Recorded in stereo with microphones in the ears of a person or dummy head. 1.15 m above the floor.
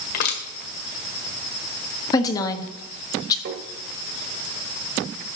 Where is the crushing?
55° left (ahead or behind), 1.7 m.